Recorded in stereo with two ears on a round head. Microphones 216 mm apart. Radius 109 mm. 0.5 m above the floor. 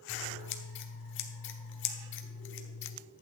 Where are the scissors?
50° left (ahead or behind), 1.2 m.